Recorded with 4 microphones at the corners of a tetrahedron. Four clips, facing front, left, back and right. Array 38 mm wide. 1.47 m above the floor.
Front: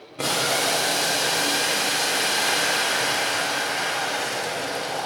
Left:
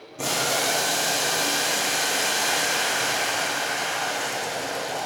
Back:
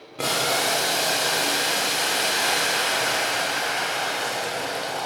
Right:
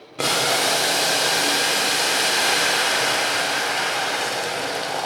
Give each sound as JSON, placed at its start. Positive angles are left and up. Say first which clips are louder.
{"t": 0.2, "sound": "boiling", "louder": "right 4 dB, even", "azimuth_deg": -95, "distance_m": 1.0}